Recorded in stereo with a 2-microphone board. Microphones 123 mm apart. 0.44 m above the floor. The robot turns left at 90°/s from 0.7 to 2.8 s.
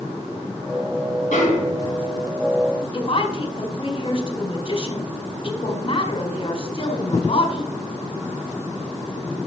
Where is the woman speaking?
45° left (ahead or behind), 1.9 m.